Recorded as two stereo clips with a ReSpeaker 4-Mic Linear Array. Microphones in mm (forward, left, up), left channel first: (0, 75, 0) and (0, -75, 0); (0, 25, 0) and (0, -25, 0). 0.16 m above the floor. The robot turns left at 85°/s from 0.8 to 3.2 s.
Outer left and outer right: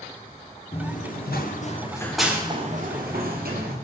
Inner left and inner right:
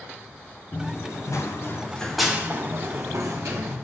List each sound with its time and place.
0.7 s running footsteps: 40° left (ahead or behind), 2.5 m; by 3.8 s 80° right, 6 m